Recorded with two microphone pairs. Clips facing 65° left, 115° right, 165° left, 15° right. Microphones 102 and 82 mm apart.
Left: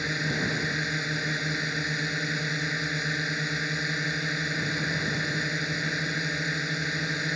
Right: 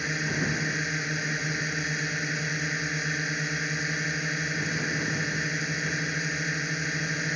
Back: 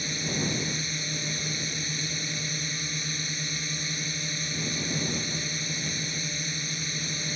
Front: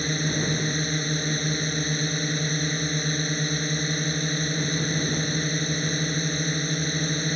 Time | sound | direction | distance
0.0 | a drone | 20° right | ?